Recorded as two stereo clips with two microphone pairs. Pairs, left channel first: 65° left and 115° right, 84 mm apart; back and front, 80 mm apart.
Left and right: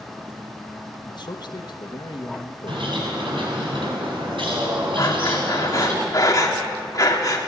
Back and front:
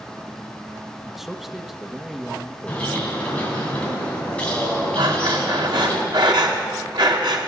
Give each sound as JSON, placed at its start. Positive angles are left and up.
{"t": 1.1, "sound": "a man speaking", "azimuth_deg": 85, "distance_m": 1.3}
{"t": 2.7, "sound": "a bird", "azimuth_deg": -105, "distance_m": 6.5}
{"t": 5.0, "sound": "breathing", "azimuth_deg": 15, "distance_m": 3.0}